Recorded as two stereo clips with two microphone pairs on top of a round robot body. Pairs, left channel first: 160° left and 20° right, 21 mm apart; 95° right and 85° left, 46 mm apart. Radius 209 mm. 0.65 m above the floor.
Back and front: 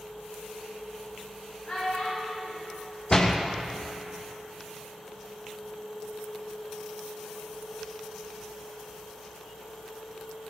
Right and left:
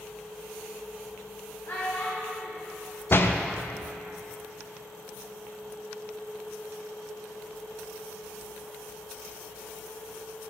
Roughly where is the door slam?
Behind right.